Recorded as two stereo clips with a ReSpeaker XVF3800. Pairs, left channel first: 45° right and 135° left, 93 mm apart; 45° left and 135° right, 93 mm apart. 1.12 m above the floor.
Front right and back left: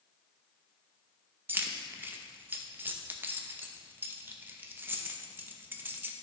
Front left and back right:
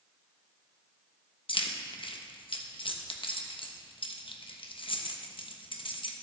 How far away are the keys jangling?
About 0.7 m.